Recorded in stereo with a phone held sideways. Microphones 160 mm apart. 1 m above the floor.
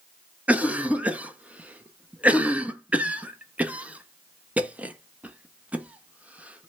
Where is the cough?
10° right (ahead or behind), 0.6 m.